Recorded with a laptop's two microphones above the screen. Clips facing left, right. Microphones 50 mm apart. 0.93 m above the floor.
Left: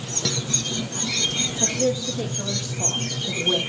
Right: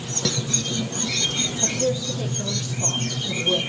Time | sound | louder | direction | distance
1.6 | a woman speaking | left 2 dB | 45° left (ahead or behind) | 1.4 m